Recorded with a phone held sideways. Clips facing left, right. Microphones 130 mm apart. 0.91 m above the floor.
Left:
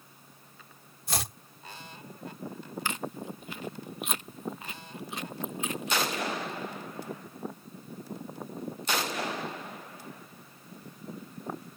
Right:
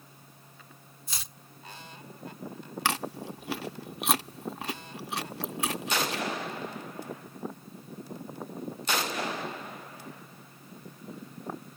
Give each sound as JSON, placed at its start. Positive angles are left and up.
{"t": 0.0, "sound": "a fan", "side_deg": -35}
{"t": 1.1, "sound": "chopping", "side_deg": 75}
{"t": 2.9, "sound": "chewing", "side_deg": -85}